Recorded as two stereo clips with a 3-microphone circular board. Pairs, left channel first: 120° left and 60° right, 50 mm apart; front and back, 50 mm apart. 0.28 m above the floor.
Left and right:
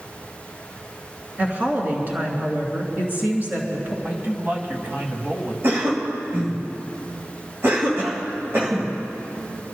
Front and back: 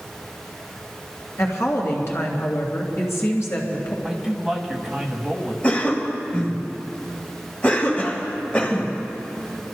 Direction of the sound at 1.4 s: 10° right.